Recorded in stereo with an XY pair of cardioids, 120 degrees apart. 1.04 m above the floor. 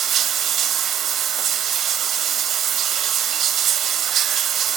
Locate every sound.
0.0 s running water: 60° right, 2 m